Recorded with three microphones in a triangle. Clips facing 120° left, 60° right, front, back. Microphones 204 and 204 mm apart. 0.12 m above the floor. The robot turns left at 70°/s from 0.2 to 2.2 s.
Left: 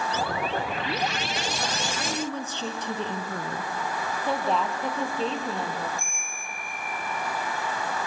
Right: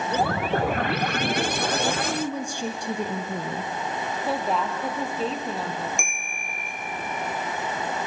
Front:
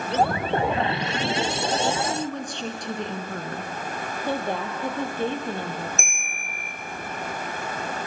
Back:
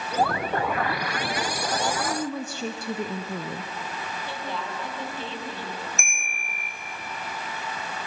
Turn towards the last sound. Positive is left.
turn(degrees=-60)